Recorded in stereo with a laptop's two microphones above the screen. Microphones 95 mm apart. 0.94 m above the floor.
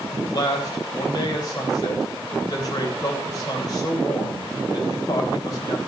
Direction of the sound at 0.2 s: 40° left (ahead or behind).